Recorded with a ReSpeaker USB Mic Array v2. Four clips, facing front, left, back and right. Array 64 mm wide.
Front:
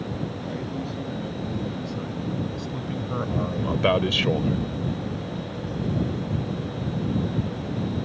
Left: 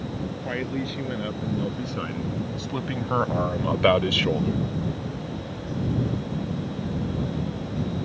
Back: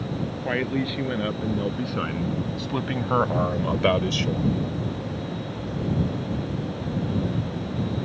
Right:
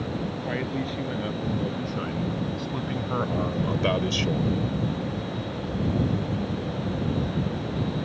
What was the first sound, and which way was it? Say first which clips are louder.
A man speaking: left 2 dB, back 6 dB; 175° left.